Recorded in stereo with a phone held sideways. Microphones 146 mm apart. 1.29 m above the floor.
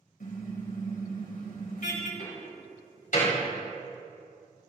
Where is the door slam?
70° left (ahead or behind), 6.5 m.